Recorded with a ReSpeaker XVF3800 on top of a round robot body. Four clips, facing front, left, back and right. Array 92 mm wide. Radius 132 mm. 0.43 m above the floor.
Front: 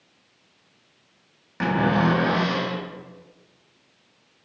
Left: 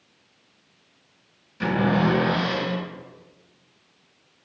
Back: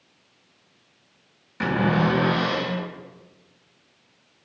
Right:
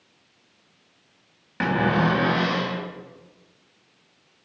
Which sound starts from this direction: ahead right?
A cupboard door, at 1.6 s.